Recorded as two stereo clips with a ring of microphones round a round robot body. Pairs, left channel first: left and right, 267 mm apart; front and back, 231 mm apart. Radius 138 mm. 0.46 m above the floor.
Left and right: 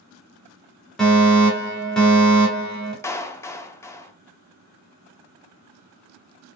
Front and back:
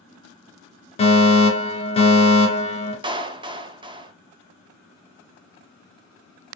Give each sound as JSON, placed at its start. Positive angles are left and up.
{"t": 1.0, "sound": "a fire alarm", "azimuth_deg": 5, "distance_m": 2.0}
{"t": 3.0, "sound": "a clap", "azimuth_deg": 155, "distance_m": 0.5}